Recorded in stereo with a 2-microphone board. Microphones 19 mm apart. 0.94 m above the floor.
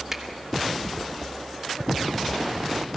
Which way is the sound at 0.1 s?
25° right (ahead or behind).